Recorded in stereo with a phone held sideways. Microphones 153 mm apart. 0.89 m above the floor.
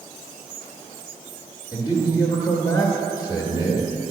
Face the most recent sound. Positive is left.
turn(degrees=30)  # may be behind; listen again after turning